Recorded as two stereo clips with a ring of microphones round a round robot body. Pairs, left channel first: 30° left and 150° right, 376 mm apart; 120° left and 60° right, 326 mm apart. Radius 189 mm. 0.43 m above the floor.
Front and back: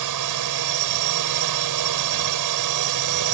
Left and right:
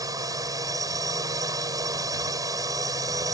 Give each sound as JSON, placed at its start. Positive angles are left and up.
{"t": 0.0, "sound": "a drone", "azimuth_deg": -140}